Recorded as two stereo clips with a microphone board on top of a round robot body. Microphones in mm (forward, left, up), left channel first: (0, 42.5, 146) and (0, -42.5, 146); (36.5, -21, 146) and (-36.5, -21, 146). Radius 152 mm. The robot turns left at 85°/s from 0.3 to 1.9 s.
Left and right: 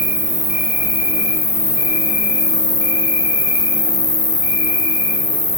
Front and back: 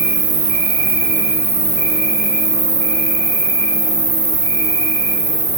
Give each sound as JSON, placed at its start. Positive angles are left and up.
{"t": 0.0, "sound": "an insect", "azimuth_deg": -160, "distance_m": 1.4}